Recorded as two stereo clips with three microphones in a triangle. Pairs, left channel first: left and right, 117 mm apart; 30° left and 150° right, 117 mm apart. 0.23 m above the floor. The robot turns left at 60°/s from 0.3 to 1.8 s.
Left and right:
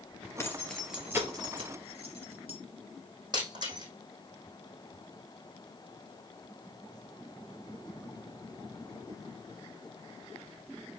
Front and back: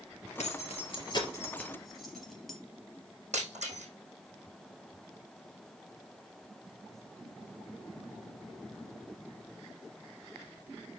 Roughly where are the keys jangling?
Ahead left.